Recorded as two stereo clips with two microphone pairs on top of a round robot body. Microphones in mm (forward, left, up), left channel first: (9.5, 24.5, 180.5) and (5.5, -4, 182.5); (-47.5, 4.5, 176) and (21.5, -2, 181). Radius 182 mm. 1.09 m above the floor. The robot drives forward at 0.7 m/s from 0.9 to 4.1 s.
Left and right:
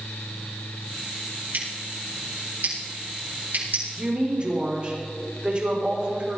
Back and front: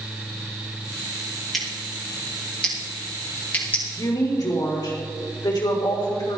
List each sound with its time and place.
1.5 s scissors: 95° right, 4 m; by 3.8 s 115° right, 4.5 m
4.0 s a woman speaking: 155° right, 4 m